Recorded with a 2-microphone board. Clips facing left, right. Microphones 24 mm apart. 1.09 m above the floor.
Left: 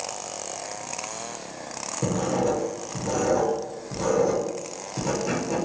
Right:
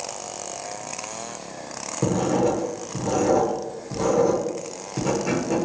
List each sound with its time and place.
2.0 s writing: 20° right (ahead or behind), 1.0 m